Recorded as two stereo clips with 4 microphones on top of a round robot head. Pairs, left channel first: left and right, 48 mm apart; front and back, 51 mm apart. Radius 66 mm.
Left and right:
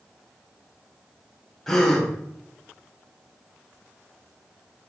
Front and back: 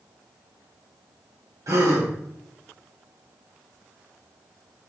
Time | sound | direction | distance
1.7 | a gasp | 170° left | 2.5 m